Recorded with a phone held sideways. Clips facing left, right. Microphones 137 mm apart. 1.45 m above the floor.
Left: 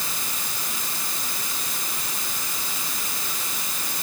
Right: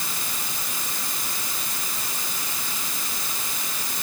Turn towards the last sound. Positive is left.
No sound to turn to.